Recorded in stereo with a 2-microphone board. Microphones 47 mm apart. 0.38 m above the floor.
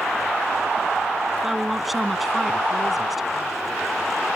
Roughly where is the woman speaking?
Centre.